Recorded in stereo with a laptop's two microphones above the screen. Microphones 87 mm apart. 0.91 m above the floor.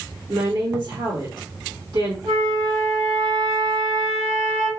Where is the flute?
70° right (ahead or behind), 1.6 m.